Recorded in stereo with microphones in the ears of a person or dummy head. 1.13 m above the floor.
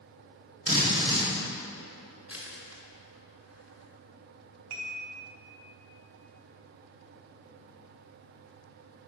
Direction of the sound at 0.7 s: 35° right (ahead or behind).